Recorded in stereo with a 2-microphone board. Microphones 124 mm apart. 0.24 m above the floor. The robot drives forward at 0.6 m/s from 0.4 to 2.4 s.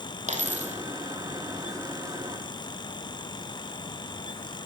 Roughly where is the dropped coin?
Right.